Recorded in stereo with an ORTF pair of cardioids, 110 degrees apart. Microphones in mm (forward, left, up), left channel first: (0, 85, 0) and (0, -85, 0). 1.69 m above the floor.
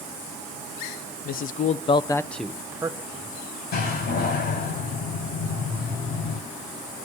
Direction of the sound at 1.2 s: 65° left.